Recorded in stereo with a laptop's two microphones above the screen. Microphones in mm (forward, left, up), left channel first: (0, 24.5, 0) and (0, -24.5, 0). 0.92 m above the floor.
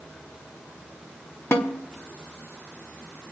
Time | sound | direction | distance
1.5 | a snare drum | 50° left (ahead or behind) | 1.2 m